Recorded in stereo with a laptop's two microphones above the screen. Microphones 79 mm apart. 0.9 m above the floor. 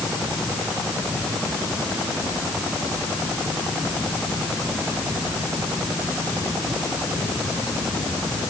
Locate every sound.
Only background noise.